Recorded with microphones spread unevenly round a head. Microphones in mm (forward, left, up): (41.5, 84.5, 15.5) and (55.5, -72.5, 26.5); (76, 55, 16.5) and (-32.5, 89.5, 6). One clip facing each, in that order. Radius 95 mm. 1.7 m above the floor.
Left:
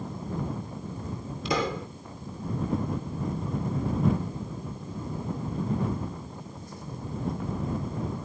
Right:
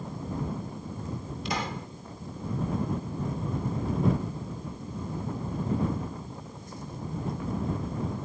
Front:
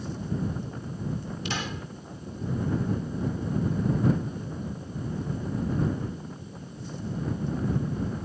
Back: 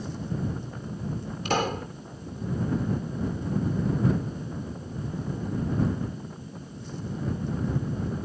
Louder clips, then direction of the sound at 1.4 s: Left 6 dB, back 10 dB; 120° left.